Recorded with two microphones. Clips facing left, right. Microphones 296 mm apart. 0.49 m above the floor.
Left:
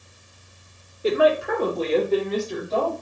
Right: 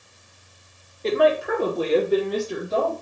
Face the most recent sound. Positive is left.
turn(degrees=-20)  # may be behind; listen again after turning